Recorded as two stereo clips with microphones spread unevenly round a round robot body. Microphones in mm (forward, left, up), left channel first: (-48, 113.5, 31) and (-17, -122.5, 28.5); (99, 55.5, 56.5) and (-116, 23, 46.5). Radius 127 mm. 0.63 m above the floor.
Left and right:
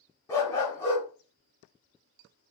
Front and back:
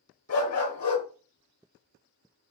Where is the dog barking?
20° left, 0.9 m.